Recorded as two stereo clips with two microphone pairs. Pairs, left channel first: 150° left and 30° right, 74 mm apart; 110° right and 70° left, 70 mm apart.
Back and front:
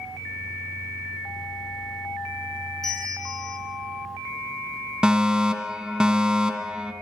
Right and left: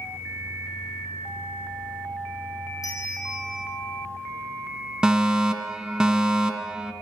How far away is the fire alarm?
About 2 m.